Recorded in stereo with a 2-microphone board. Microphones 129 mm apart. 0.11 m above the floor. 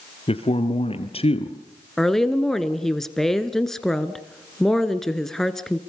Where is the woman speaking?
5° left (ahead or behind), 1.3 m.